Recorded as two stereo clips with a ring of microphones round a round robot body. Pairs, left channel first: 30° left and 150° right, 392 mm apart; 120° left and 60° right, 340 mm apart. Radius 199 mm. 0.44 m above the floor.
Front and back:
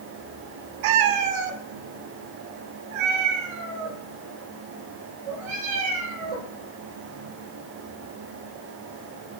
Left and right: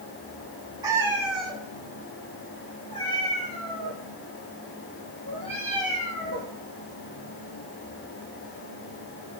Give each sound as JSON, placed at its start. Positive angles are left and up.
{"t": 0.8, "sound": "a cat meowing", "azimuth_deg": -140, "distance_m": 0.9}